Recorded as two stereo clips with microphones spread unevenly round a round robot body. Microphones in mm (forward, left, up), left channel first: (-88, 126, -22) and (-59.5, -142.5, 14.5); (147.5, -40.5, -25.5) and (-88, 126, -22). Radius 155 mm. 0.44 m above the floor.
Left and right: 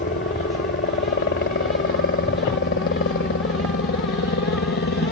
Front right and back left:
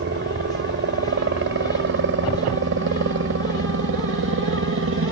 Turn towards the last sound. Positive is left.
turn(degrees=120)